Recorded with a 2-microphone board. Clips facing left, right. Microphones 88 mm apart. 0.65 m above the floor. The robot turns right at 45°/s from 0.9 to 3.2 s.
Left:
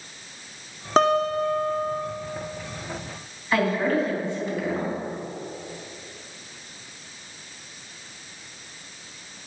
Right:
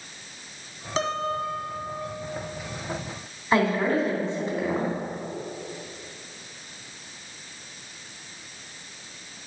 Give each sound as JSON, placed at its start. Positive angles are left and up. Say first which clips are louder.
{"t": 1.0, "sound": "a guitar", "louder": "left 7 dB", "azimuth_deg": 70, "distance_m": 0.7}
{"t": 3.5, "sound": "a woman speaking", "louder": "even", "side_deg": -35, "distance_m": 3.0}